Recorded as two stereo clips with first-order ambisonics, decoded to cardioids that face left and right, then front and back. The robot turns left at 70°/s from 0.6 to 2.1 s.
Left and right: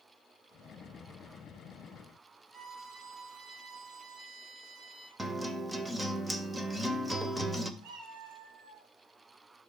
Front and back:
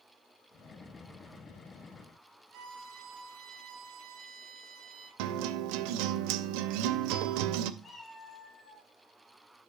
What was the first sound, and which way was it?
A violin, 160° right.